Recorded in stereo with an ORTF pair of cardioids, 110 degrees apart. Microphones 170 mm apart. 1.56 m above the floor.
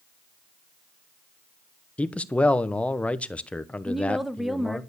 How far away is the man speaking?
About 0.9 m.